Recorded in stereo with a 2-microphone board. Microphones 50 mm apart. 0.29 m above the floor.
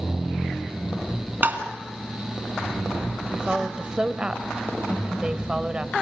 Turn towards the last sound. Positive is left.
turn(degrees=-20)  # may be behind; listen again after turning